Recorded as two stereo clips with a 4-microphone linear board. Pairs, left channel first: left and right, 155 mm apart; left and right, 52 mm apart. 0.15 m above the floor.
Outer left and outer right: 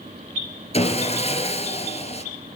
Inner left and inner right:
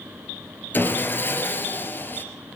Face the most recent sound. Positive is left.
turn(degrees=40)  # may be behind; listen again after turning